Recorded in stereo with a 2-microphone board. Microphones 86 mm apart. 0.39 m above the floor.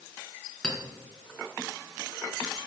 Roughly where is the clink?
Centre.